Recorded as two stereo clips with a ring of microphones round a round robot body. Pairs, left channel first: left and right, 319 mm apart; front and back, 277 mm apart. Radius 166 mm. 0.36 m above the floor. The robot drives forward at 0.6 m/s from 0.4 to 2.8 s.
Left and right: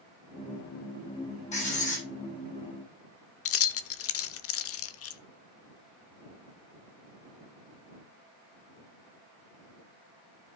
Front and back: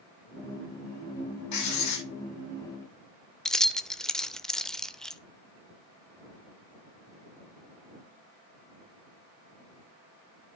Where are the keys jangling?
90° left, 0.7 m.